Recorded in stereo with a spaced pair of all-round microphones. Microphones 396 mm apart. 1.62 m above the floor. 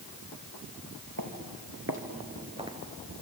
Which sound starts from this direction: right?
Footsteps, at 1.2 s.